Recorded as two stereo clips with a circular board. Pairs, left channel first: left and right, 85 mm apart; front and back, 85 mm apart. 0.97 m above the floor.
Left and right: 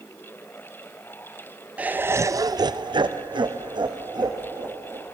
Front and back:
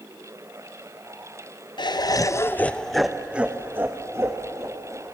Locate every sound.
1.8 s laughter: 15° right, 0.7 m; by 5.0 s 130° right, 1.6 m